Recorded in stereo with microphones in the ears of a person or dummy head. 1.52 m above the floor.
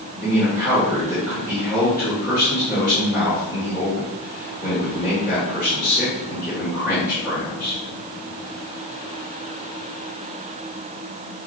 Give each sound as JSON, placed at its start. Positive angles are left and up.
{"t": 0.2, "sound": "a man speaking", "side_deg": 10, "distance_m": 2.0}